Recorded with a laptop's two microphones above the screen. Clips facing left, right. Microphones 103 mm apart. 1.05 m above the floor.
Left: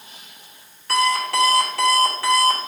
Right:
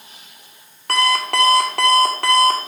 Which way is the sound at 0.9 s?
60° right (ahead or behind).